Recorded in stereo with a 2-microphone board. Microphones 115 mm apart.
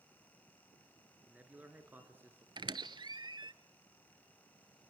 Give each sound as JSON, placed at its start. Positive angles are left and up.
{"t": 1.3, "sound": "a man speaking", "side_deg": -10, "distance_m": 2.5}
{"t": 2.6, "sound": "a squeak", "side_deg": -40, "distance_m": 0.5}